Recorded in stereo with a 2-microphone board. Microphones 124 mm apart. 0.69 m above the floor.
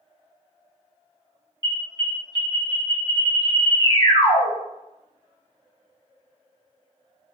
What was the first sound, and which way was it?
An alarm, 35° left (ahead or behind).